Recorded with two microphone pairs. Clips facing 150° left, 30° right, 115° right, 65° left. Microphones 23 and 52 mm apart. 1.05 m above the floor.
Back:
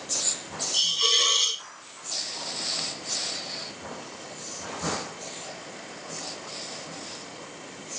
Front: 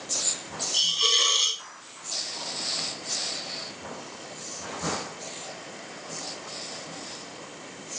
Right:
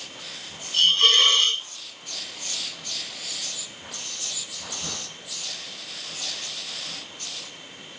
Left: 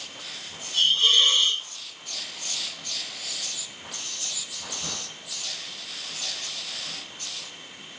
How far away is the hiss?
About 1.3 m.